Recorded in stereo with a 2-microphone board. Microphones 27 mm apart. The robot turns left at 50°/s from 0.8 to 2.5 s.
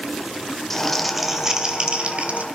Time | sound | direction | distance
0.7 | crumpling | 15° left | 2.5 m